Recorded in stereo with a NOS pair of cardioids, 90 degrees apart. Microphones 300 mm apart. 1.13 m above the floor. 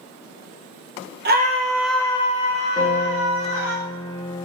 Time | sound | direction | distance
1.2 | a scream | 35° right | 0.7 m
2.8 | a piano | 15° left | 1.2 m